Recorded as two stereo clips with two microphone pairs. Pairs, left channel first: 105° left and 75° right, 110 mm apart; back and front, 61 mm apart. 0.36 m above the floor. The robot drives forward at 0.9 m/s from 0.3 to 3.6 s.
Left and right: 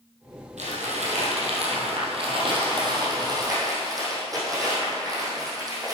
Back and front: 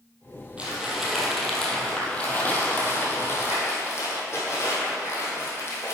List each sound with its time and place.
0.6 s crumpling: 70° right, 2.5 m; by 5.9 s 135° right, 3 m